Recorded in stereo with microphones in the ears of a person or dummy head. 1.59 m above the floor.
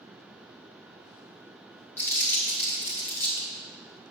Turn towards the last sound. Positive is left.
turn(degrees=15)  # may be behind; listen again after turning